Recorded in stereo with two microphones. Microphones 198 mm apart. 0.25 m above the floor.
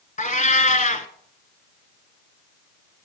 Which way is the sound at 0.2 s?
40° left (ahead or behind).